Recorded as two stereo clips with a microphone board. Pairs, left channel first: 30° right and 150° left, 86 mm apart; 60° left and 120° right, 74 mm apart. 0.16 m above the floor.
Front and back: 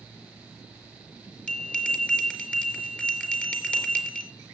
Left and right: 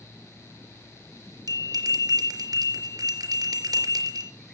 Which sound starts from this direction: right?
A bell, at 1.5 s.